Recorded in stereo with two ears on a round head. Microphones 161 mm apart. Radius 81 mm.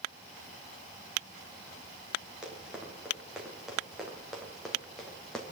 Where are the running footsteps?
5° right (ahead or behind), 6 m; by 5.4 s 5° left (ahead or behind), 4 m.